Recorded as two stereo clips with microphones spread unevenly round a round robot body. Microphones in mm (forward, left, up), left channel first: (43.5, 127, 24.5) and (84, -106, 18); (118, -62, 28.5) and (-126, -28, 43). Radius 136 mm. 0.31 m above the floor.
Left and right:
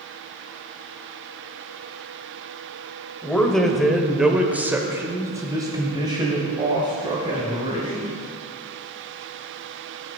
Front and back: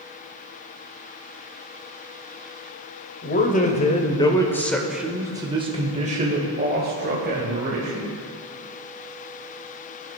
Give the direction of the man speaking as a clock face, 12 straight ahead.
12 o'clock.